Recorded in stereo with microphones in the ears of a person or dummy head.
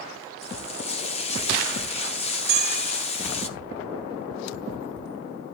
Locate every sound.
0.4 s frying: 35° left (ahead or behind), 0.7 m
2.5 s a bell: 45° right (ahead or behind), 1.4 m